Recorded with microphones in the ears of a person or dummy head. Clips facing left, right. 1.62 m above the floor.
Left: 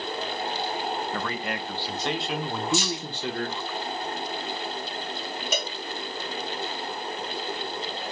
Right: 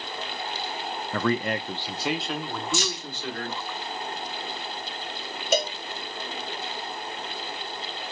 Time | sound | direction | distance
1.1 | a man speaking | 55° right (ahead or behind) | 0.6 m
2.7 | keys jangling | 50° right (ahead or behind) | 0.9 m
5.5 | a cowbell | 30° right (ahead or behind) | 0.5 m